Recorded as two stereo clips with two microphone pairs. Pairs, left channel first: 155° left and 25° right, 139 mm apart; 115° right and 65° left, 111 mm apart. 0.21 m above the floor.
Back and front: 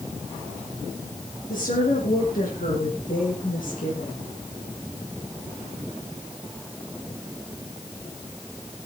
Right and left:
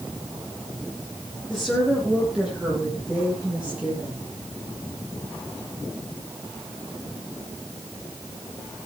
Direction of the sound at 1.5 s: 150° left.